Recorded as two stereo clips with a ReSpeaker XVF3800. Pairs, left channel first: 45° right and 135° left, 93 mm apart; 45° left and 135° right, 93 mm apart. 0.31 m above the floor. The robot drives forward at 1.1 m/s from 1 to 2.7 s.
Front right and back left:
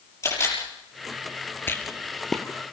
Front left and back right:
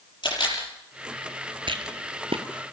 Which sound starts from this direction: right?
A rattle, at 1.7 s.